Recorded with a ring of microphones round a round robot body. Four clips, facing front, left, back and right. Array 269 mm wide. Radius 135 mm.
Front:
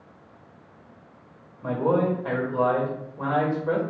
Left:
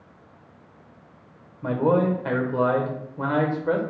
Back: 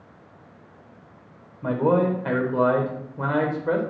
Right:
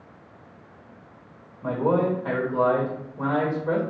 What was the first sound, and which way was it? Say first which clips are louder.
A man speaking: left 1 dB, back 2 dB; 140° left.